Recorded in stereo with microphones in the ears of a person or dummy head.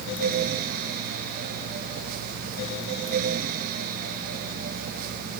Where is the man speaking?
I don't hear a man speaking.